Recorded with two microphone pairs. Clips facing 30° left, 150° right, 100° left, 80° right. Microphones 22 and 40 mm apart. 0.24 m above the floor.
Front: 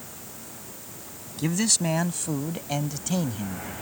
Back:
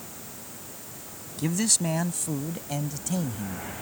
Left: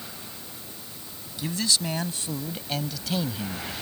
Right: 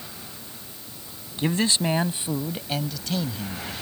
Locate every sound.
1.4 s a man speaking: 50° right; by 3.7 s 50° left